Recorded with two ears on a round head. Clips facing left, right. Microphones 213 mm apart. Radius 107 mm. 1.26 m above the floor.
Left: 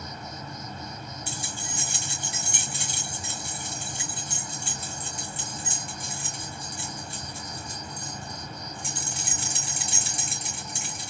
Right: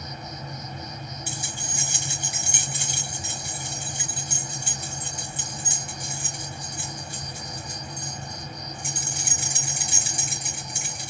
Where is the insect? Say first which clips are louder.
Right 1 dB; 15° right (ahead or behind), 1.1 m.